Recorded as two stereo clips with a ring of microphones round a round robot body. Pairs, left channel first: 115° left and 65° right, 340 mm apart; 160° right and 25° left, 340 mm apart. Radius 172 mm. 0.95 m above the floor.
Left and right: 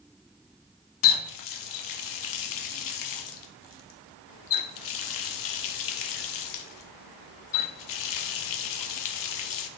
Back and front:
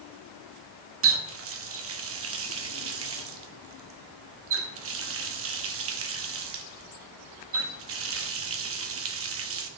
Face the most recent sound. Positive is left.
turn(degrees=75)